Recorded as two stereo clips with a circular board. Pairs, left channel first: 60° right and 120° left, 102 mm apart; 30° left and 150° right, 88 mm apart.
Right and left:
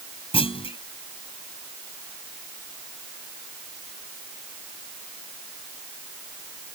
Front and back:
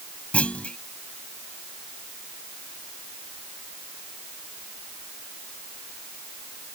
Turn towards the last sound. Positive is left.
turn(degrees=-45)